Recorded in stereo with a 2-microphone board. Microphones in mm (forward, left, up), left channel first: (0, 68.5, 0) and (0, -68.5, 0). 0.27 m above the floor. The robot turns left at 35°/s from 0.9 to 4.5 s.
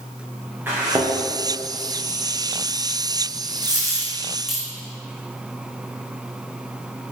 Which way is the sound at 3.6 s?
30° right (ahead or behind).